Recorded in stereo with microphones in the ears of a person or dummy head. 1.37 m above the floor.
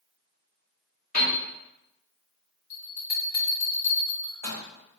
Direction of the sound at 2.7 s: 45° left (ahead or behind).